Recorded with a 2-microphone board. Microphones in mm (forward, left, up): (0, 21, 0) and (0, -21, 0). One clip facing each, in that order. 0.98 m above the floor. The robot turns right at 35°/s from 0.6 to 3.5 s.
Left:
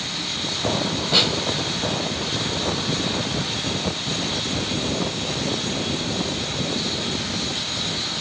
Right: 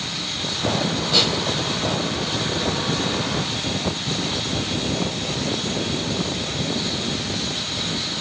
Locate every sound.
1.1 s a snare drum: 15° left (ahead or behind), 4 m; by 1.3 s 10° left (ahead or behind), 4 m